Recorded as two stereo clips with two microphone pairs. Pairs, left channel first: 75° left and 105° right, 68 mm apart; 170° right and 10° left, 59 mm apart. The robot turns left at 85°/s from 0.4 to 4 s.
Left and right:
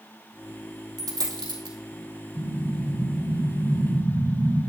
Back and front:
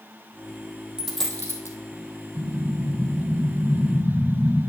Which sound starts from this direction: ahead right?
An explosion, at 2.4 s.